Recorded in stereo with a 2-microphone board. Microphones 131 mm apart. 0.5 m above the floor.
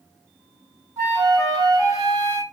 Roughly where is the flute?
Right.